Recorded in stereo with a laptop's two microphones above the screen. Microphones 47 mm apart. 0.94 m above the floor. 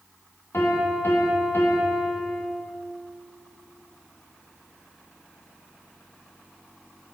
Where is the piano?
65° left (ahead or behind), 1.5 m.